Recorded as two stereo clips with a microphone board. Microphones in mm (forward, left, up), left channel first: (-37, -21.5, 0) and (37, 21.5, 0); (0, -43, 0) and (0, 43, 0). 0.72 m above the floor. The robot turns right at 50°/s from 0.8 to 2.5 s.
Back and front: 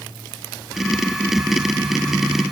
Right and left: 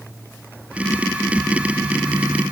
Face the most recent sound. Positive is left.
No sound to turn to.